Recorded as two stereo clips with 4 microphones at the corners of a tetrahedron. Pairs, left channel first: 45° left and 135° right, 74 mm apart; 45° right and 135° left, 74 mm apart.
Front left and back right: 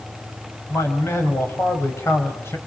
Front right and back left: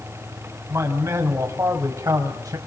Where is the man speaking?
90° left, 6 m; by 2.6 s 100° left, 5.5 m.